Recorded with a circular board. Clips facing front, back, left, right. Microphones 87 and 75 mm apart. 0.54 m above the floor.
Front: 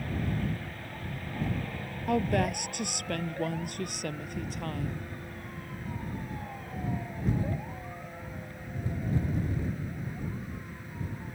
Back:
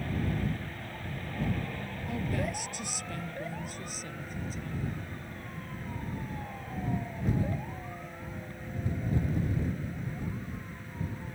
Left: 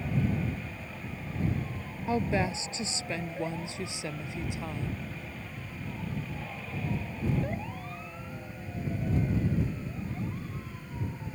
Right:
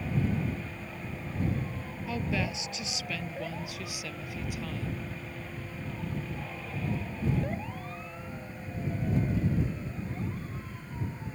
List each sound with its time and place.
2.1 s a woman speaking: 30° left; by 5.0 s 25° left